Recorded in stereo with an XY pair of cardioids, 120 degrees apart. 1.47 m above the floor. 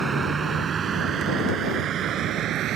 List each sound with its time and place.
0.0 s a vehicle: 25° right; by 2.8 s 60° right